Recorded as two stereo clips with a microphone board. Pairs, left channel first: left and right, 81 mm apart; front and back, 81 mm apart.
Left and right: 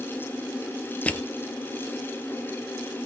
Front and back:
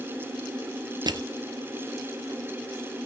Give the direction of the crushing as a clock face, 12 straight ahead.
7 o'clock.